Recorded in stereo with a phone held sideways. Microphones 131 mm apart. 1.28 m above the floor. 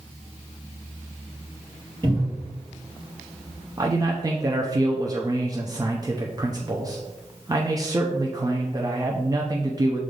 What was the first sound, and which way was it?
A cupboard door, 35° right (ahead or behind).